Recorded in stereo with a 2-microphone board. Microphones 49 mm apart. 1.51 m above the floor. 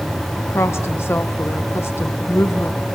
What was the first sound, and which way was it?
A woman speaking, 60° left (ahead or behind).